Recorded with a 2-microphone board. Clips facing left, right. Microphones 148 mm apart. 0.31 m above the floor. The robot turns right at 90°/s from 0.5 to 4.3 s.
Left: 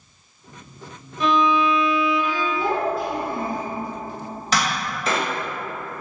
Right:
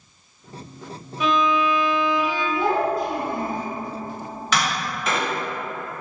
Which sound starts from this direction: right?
A child speaking, at 2.5 s.